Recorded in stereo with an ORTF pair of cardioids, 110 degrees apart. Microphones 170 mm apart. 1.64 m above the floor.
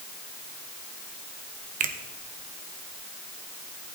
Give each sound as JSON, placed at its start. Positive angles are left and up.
{"t": 1.8, "sound": "a finger snap", "azimuth_deg": -55, "distance_m": 1.2}